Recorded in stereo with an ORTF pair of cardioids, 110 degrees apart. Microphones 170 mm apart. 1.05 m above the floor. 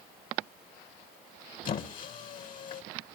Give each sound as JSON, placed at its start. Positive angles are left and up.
{"t": 1.6, "sound": "a squeak", "azimuth_deg": 55, "distance_m": 2.5}